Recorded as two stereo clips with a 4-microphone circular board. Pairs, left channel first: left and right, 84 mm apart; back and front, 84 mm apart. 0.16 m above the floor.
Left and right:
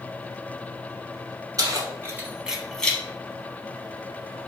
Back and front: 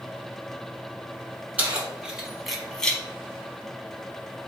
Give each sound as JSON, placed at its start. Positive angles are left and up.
{"t": 1.6, "sound": "keys jangling", "azimuth_deg": -70, "distance_m": 1.1}